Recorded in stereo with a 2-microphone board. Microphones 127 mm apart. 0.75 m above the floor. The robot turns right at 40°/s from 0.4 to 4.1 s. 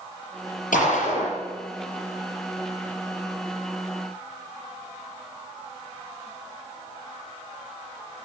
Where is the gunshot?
80° left, 7 m; by 1.4 s 55° left (ahead or behind), 7 m.